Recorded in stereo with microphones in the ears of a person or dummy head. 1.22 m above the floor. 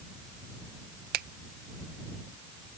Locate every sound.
1.1 s a finger snap: 45° right (ahead or behind)